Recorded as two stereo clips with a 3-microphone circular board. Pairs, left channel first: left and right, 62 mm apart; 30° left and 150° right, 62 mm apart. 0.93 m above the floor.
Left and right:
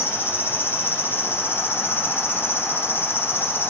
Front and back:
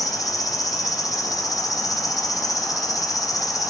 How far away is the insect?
About 1.1 m.